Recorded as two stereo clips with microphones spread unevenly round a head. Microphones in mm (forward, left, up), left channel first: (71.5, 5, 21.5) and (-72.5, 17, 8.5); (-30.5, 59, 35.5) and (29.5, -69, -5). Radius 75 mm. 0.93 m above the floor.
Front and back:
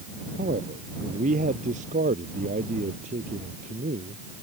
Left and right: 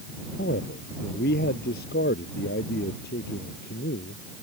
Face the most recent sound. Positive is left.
turn(degrees=135)